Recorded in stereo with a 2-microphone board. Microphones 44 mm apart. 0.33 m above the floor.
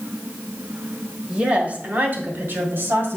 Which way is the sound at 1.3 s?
20° right (ahead or behind).